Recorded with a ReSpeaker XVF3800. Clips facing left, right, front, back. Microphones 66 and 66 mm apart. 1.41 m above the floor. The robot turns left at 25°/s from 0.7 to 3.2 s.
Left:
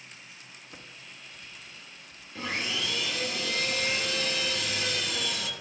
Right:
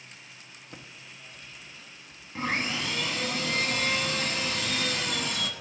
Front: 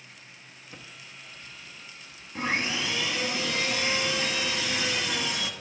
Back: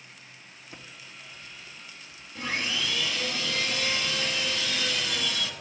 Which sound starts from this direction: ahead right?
Sawing, at 2.4 s.